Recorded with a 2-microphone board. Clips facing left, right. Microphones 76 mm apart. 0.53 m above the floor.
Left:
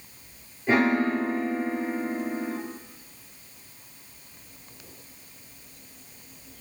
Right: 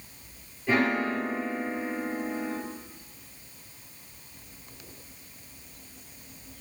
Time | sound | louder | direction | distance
0.7 | a piano | left 3 dB | 25° left (ahead or behind) | 2 m